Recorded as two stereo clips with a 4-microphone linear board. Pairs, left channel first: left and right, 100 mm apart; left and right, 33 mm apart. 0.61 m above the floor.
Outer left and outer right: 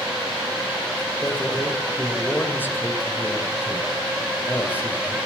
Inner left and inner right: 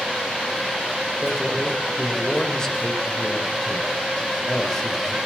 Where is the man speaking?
20° left (ahead or behind), 3.5 m.